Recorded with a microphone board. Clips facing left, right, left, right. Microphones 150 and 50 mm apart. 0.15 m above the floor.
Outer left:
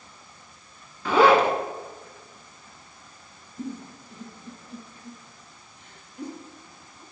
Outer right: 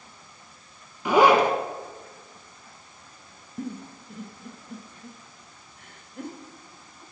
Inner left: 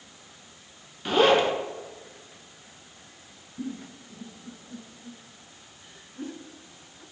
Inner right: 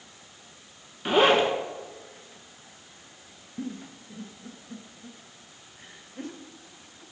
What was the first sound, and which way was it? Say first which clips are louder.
A zipper: even, even; 15° right (ahead or behind).